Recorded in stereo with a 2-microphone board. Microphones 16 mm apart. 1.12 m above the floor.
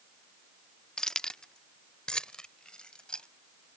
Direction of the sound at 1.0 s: 45° left (ahead or behind).